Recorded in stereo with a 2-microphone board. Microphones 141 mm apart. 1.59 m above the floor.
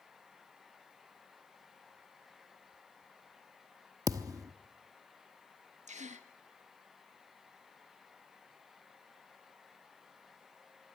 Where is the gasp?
55° right (ahead or behind), 1.4 m.